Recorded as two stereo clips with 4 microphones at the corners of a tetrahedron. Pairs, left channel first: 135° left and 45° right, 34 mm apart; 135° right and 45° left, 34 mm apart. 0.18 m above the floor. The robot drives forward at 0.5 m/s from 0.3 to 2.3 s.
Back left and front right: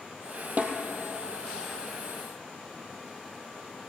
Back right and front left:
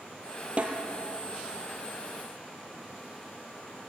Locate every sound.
0.6 s a snare drum: 5° right, 3 m